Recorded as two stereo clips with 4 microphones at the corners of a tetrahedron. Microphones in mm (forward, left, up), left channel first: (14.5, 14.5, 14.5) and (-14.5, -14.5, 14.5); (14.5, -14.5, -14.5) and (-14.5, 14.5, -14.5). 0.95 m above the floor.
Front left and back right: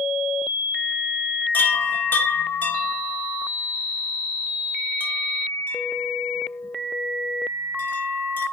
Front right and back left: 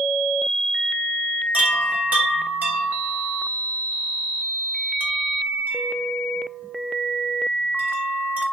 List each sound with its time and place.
1.5 s a chime: 90° left, 2 m